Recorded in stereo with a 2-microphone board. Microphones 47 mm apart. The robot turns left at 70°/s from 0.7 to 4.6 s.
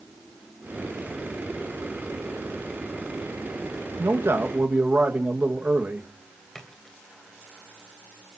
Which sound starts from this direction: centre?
A splash, at 6.5 s.